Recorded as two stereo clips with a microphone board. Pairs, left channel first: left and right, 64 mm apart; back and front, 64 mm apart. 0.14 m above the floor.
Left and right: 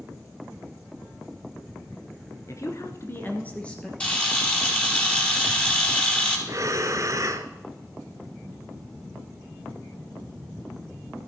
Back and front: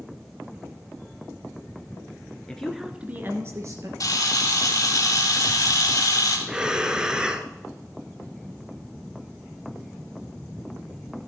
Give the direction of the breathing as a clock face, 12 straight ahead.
3 o'clock.